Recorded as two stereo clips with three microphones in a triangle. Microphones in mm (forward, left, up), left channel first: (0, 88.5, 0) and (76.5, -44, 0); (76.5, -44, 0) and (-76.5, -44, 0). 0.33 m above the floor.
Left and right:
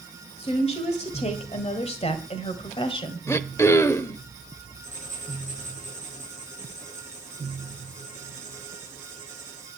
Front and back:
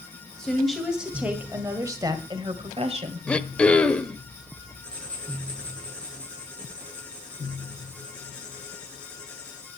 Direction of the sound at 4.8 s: 80° left.